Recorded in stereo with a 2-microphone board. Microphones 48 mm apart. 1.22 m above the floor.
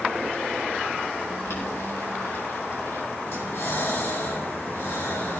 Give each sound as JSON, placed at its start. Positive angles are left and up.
{"t": 1.4, "sound": "boiling", "side_deg": 75, "distance_m": 9.0}
{"t": 3.3, "sound": "breathing", "side_deg": 60, "distance_m": 8.5}